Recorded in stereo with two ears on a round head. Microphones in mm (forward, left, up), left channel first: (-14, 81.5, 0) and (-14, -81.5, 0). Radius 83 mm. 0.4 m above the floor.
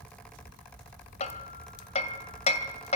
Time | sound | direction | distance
1.2 | hammering | 35° left (ahead or behind) | 1.9 m